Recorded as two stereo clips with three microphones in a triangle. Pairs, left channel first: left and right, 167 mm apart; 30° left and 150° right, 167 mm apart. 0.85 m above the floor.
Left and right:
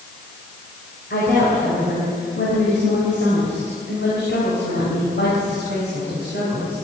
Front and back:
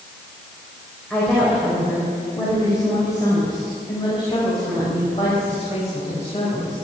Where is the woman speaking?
115° left, 4 m; by 6.8 s 80° left, 5.5 m.